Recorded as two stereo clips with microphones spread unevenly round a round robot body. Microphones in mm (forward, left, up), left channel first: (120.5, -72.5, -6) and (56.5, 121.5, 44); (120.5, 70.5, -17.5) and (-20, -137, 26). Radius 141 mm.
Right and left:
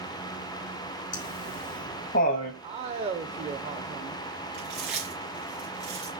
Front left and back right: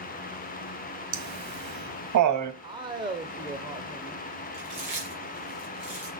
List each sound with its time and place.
1.1 s laughter: 115° right, 1.8 m
2.6 s a man speaking: 165° left, 0.9 m
4.5 s chewing: 165° left, 4 m